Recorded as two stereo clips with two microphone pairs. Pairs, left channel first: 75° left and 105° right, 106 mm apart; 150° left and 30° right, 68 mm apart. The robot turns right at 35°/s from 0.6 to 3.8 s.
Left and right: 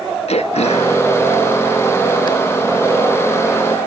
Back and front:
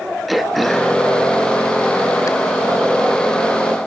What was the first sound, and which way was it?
Throat clearing, 65° left.